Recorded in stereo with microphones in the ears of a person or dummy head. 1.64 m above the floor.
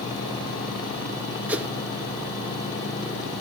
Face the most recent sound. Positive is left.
turn(degrees=-5)  # may be behind; listen again after turning